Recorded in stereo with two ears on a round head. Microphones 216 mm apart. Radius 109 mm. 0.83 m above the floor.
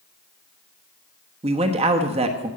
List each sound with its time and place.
1.4 s a man speaking: 25° right (ahead or behind), 1.1 m